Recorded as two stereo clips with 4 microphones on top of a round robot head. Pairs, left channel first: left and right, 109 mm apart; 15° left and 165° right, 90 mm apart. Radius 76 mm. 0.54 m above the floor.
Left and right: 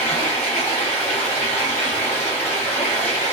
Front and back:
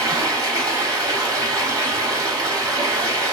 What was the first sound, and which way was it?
Running water, 160° left.